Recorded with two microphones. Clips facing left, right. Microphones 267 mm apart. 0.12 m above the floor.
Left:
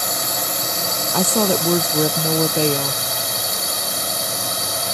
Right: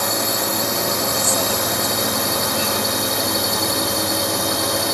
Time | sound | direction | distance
0.0 | a drone | 70° right (ahead or behind) | ?
1.1 | a woman speaking | 65° left (ahead or behind) | ?